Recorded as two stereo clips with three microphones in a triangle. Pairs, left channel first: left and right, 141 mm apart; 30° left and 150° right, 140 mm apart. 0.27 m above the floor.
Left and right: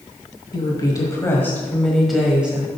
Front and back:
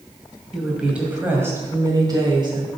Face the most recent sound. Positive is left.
turn(degrees=-160)